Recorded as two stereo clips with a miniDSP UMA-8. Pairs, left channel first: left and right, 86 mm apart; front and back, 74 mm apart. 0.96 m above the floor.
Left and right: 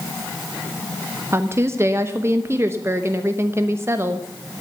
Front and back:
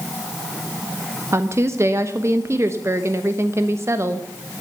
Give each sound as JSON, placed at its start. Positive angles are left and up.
{"t": 1.3, "sound": "a woman speaking", "azimuth_deg": -140, "distance_m": 0.9}